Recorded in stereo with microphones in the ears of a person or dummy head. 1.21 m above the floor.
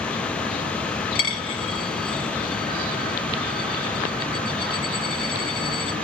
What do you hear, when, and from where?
1.1 s a dropped coin: 45° left (ahead or behind), 0.7 m